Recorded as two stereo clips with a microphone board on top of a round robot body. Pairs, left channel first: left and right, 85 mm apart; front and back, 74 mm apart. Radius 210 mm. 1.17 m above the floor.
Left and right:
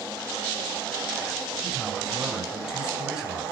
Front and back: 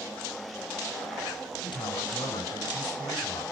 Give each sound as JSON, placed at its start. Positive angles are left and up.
{"t": 1.6, "sound": "a man speaking", "azimuth_deg": -5, "distance_m": 10.0}